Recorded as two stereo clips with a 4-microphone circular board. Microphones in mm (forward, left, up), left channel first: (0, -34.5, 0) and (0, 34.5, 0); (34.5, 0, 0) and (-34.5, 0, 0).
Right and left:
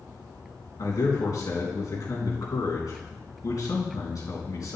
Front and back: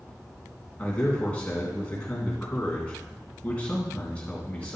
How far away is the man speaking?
About 3.5 m.